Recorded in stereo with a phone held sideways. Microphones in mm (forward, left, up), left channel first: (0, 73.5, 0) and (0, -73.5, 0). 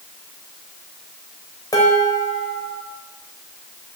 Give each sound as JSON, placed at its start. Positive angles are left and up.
{"t": 1.7, "sound": "dishes clattering", "side_deg": 25, "distance_m": 4.0}